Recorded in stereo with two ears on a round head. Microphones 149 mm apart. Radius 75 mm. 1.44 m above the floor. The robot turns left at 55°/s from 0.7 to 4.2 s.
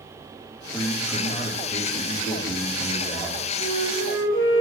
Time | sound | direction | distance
0.7 | a man speaking | 170° left | 2.5 m
3.6 | a flute | 100° left | 4.5 m